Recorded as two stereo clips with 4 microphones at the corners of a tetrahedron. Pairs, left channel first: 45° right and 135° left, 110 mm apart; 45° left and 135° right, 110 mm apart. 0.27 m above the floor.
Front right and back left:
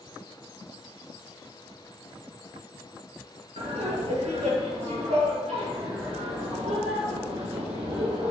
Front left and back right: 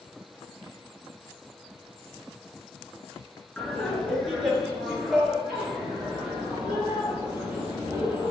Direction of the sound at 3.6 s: 125° left.